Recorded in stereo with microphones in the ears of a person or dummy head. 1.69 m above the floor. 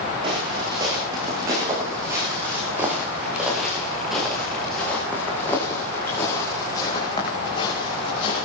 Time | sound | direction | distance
0.2 | footsteps | 30° right (ahead or behind) | 8 m